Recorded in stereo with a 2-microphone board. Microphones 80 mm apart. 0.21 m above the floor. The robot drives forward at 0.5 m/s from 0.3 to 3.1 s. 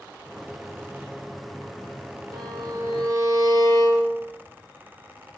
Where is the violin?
60° right (ahead or behind), 1.5 m; by 4.2 s 50° right (ahead or behind), 1.8 m.